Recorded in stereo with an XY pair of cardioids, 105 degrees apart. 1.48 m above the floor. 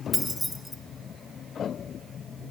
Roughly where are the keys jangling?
Ahead.